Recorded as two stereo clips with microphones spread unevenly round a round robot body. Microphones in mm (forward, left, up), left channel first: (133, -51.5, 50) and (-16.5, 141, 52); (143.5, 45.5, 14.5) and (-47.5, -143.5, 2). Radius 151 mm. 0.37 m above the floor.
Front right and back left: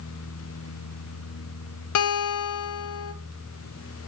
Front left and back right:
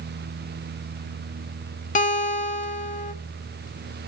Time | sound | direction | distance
1.9 | a guitar | 20° right | 0.7 m